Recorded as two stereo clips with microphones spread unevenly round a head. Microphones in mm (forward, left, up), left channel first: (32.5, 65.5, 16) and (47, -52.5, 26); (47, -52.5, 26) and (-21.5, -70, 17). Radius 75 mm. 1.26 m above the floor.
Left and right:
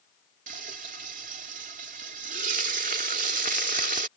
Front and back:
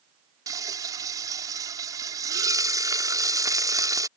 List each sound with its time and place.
0.5 s frying: 125° right